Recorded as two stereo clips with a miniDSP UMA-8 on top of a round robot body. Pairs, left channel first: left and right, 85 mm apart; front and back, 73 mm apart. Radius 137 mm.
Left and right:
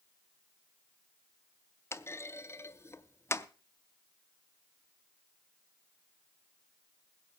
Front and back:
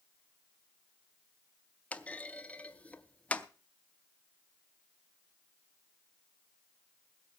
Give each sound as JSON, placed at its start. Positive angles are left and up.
{"t": 1.9, "sound": "a clunk", "azimuth_deg": 60, "distance_m": 0.9}